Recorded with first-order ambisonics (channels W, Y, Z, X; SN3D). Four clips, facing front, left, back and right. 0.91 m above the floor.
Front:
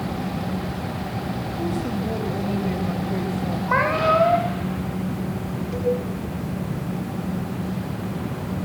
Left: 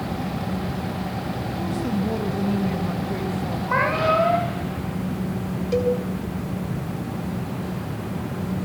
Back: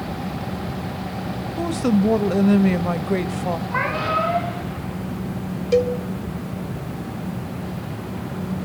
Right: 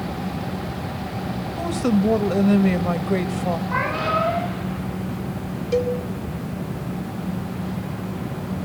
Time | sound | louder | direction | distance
1.6 | a woman speaking | right 6 dB, back 8 dB | 140° right | 1.2 m
3.7 | a cat meowing | left 5 dB, front 5 dB | 25° left | 9.5 m
5.7 | a cowbell | even, back 5 dB | straight behind | 2.5 m